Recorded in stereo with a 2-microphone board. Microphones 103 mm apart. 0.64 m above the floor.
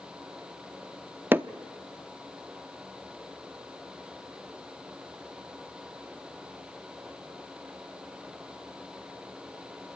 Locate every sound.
1.3 s hammering: 20° right (ahead or behind), 0.5 m